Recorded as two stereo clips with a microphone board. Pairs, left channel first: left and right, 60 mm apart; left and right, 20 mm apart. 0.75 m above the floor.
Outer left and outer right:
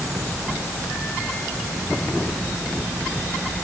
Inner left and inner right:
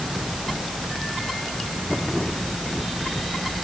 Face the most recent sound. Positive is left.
No sound to turn to.